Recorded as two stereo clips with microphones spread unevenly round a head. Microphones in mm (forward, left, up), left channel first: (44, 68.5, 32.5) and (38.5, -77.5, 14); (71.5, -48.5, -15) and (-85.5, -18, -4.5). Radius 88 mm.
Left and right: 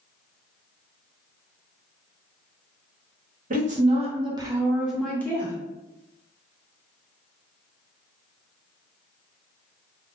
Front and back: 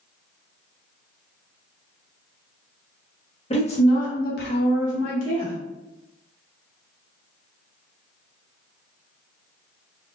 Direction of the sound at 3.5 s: 65° right.